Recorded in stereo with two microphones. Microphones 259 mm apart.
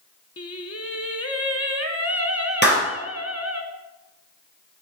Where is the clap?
40° left (ahead or behind), 3.5 m.